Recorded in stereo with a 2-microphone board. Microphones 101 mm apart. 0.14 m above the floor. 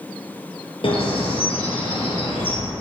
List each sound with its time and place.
0.8 s a bird: 65° left (ahead or behind), 2.5 m